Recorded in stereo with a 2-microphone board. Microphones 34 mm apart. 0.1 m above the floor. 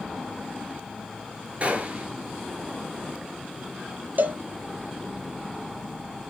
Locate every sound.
1.6 s a gunshot: 35° right (ahead or behind), 1.0 m
4.2 s a cowbell: 60° right (ahead or behind), 0.6 m